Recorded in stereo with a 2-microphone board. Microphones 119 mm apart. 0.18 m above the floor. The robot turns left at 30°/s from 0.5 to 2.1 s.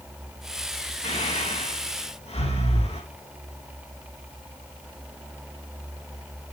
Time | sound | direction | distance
1.0 | breathing | 80° left | 7 m